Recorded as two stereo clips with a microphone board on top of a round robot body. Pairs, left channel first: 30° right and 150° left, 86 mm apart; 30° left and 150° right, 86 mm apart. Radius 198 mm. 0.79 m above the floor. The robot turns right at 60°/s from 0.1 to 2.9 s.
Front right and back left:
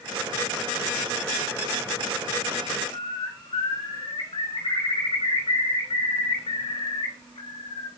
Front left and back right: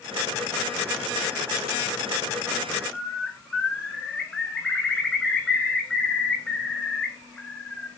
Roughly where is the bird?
Ahead right.